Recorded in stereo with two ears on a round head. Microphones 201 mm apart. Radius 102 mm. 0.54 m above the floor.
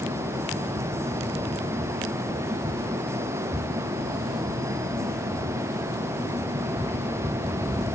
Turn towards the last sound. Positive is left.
No sound to turn to.